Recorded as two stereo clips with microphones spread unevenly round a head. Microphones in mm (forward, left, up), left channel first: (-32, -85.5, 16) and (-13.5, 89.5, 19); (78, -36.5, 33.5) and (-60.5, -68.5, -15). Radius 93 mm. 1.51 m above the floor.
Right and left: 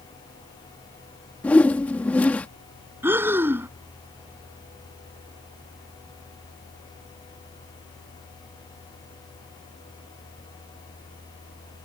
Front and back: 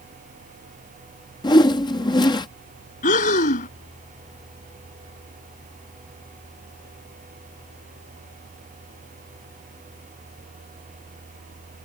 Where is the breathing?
5° left.